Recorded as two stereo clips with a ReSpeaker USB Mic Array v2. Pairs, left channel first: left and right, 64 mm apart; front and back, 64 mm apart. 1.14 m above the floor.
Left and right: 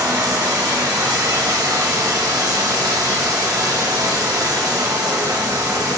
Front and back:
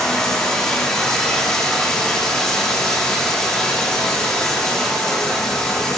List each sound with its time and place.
0.0 s running water: 80° right, 1.2 m